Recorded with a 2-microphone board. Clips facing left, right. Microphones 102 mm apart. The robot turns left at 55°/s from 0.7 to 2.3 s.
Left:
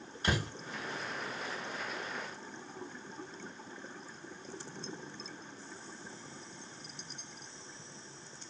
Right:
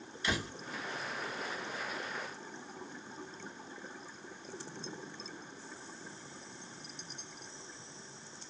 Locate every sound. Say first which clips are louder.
0.2 s a door slam: left 2 dB; 45° left (ahead or behind), 1.3 m